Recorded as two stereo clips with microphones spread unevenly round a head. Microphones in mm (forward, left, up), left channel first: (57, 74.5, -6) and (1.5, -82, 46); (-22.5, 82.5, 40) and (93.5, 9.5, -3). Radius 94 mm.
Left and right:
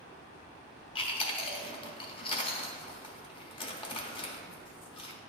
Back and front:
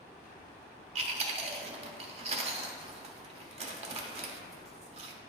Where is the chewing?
10° left, 0.9 m.